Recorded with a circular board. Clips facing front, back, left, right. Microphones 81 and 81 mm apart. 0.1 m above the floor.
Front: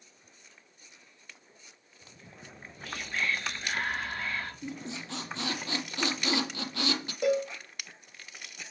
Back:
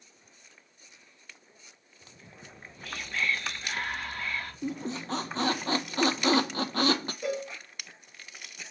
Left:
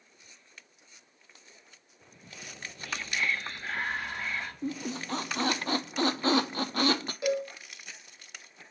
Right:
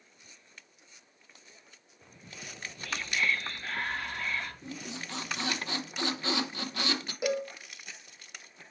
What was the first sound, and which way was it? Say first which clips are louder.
Whispering: front 1 dB, even; 35° left.